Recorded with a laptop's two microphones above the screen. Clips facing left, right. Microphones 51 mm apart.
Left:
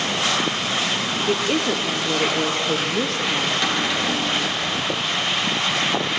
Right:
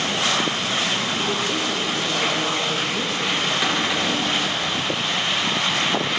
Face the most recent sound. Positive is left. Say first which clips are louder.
# even
turn(degrees=-10)  # may be behind; listen again after turning